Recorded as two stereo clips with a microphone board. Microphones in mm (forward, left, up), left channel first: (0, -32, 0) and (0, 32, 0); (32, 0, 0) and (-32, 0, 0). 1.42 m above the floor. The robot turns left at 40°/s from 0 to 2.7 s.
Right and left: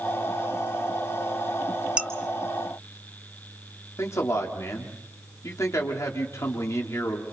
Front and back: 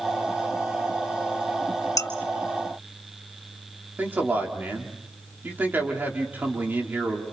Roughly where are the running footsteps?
I don't hear running footsteps.